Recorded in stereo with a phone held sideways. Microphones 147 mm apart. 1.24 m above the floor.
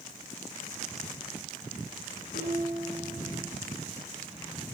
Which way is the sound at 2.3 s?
85° left.